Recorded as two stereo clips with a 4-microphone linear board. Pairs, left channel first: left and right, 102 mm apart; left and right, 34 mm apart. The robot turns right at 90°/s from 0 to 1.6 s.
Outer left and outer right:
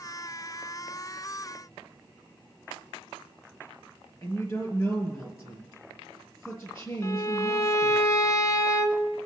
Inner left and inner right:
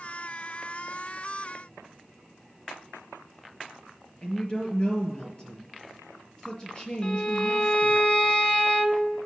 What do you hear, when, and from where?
4.2 s a woman speaking: 30° left (ahead or behind), 3 m
7.0 s a violin: 30° left (ahead or behind), 0.8 m